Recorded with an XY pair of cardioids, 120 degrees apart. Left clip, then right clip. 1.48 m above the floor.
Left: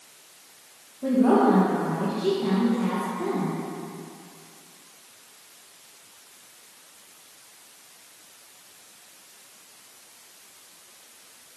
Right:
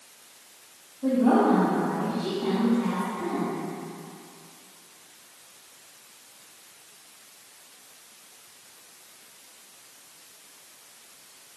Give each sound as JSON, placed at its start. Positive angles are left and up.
{"t": 1.0, "sound": "a woman speaking", "azimuth_deg": 55, "distance_m": 1.8}